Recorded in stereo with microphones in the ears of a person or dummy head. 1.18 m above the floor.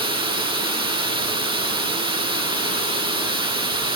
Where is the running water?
20° right (ahead or behind), 0.8 m.